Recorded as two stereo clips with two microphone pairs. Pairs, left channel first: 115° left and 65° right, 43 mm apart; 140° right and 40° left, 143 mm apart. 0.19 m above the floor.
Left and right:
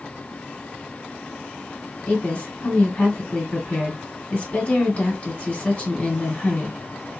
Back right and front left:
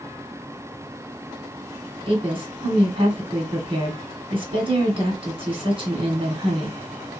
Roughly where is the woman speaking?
Left.